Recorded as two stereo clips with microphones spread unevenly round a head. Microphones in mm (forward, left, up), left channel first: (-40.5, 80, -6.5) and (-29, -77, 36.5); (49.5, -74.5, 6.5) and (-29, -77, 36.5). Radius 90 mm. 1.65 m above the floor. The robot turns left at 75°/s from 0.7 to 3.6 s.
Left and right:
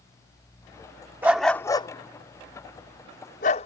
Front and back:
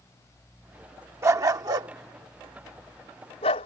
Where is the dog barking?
150° right; by 3.7 s 30° left.